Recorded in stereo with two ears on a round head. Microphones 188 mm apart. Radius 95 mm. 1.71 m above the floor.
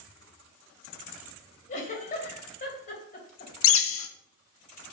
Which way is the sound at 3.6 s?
70° left (ahead or behind).